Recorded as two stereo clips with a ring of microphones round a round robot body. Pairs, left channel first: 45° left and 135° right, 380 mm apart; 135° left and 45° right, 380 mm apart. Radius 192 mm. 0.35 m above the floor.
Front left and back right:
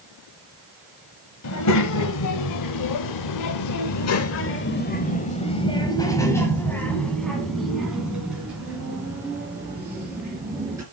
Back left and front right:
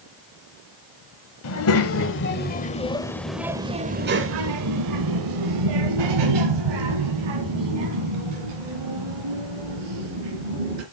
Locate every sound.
1.4 s a child speaking: 90° left, 1.5 m; by 10.8 s 50° right, 4 m